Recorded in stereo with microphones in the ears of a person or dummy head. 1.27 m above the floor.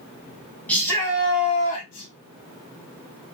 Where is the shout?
5° left (ahead or behind), 1.4 m; by 2.1 s 50° left (ahead or behind), 1.2 m.